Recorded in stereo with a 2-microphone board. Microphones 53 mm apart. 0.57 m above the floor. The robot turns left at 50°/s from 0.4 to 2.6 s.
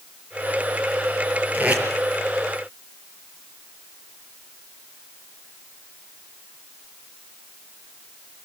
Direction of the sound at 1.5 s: 35° right (ahead or behind).